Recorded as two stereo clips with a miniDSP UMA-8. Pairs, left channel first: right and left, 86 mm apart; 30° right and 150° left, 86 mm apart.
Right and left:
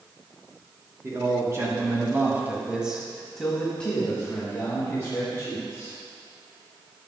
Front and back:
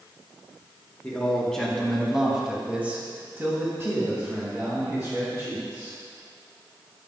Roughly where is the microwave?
No microwave in this recording.